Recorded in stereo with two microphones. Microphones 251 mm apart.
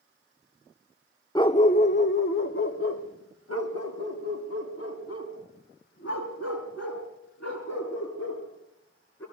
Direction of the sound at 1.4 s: 15° left (ahead or behind).